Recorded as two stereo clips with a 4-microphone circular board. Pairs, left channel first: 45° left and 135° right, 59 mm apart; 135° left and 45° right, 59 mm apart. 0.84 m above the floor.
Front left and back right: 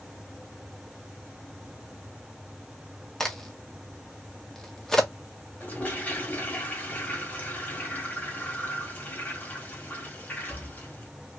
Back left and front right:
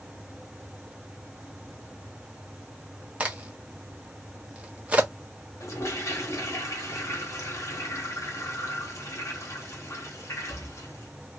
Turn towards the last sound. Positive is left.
turn(degrees=105)